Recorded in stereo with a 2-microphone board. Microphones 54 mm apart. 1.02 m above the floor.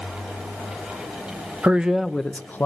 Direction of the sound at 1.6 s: 25° right (ahead or behind).